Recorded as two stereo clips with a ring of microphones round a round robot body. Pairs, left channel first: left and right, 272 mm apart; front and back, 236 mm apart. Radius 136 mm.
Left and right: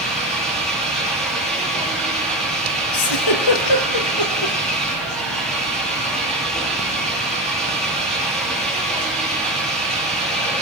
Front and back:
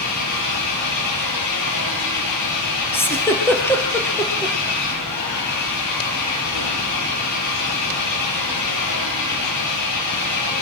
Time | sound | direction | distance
0.0 | an engine running | straight ahead | 9.5 m
2.9 | a giggle | 80° left | 4 m